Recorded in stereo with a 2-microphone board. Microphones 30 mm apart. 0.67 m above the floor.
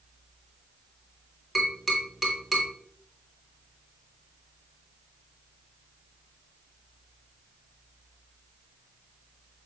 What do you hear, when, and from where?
1.6 s tapping: 10° right (ahead or behind), 3.5 m